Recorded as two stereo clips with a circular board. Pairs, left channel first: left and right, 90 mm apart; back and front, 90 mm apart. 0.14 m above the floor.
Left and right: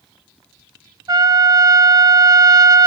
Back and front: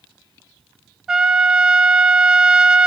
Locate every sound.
1.1 s a trumpet: 80° right, 0.6 m